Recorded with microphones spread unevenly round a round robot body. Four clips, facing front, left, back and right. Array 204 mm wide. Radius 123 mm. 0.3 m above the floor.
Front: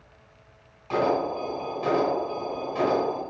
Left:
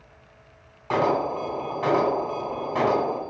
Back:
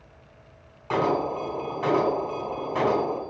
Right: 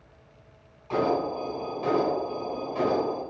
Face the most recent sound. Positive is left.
turn(degrees=105)